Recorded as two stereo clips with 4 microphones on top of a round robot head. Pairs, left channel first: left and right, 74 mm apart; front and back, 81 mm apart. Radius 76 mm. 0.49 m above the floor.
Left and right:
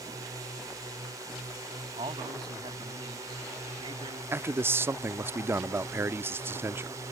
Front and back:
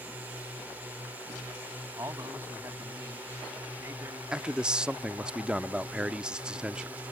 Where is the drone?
115° right.